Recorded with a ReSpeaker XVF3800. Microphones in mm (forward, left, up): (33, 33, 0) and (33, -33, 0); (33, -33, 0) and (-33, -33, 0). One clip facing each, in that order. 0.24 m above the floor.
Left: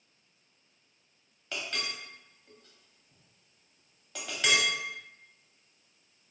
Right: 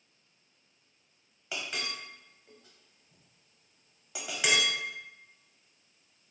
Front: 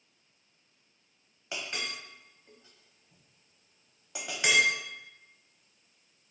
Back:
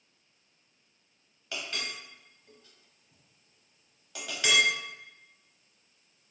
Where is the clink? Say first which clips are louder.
Even, even; 30° right, 0.6 m.